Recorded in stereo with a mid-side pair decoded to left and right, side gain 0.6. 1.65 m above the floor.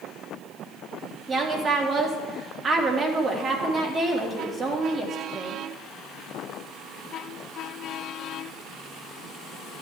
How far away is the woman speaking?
About 2.5 m.